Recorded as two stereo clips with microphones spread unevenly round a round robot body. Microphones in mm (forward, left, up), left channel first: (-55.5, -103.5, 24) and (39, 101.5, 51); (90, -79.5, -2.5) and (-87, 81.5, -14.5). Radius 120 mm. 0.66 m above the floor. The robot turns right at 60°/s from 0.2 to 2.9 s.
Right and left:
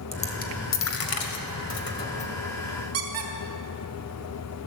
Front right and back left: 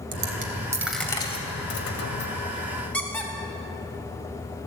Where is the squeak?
40° left, 2 m.